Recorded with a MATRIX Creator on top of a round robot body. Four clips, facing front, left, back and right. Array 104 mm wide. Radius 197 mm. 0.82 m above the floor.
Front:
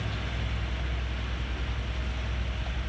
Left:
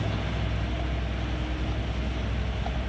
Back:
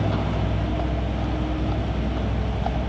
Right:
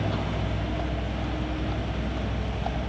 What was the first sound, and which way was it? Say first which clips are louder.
A vehicle: right 3 dB, back 12 dB; 165° right.